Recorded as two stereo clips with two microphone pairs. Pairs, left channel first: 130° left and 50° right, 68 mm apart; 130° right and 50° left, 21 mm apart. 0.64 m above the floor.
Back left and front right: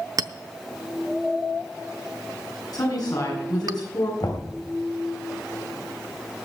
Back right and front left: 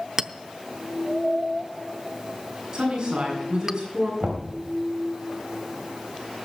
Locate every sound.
0.2 s a clink: 15° right, 0.6 m
2.7 s a woman speaking: 115° left, 7 m
4.2 s knocking: 120° left, 3 m